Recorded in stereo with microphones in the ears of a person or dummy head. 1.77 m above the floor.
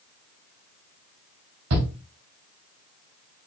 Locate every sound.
1.7 s a shout: 75° right (ahead or behind), 0.9 m